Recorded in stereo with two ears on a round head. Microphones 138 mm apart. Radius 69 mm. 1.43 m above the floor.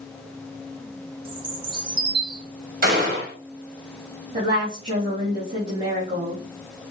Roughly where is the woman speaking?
Right.